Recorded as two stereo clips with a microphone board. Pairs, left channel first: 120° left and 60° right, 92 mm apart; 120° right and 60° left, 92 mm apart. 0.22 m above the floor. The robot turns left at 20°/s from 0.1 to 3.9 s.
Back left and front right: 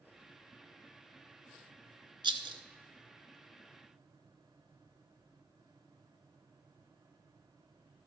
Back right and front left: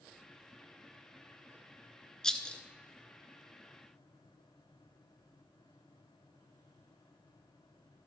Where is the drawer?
No drawer in this recording.